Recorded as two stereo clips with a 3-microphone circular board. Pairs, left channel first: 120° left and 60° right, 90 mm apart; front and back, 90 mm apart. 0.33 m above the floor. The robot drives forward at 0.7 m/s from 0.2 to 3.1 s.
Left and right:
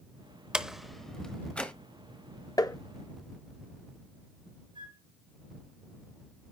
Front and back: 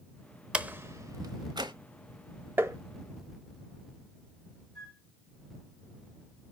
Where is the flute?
80° right, 3 m.